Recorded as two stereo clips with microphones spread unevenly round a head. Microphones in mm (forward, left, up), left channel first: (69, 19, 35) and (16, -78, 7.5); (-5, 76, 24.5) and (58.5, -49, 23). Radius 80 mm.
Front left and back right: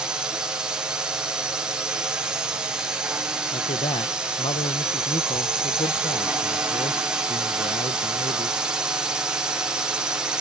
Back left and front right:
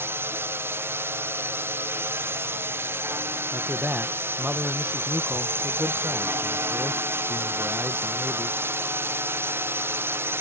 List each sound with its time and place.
0.0 s a drone: 105° right
3.5 s a man speaking: 15° left